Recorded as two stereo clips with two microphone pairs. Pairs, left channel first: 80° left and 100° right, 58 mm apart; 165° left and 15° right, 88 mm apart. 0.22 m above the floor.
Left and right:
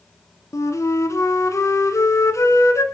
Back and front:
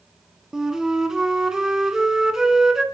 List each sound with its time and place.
0.5 s a flute: 70° left, 1.9 m